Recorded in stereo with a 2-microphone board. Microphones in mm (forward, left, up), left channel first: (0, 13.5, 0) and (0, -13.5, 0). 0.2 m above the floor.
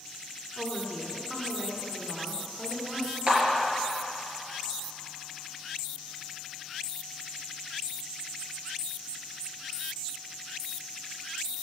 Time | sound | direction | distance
0.6 | a woman speaking | 20° right (ahead or behind) | 1.6 m
3.3 | a clap | 35° right (ahead or behind) | 3.5 m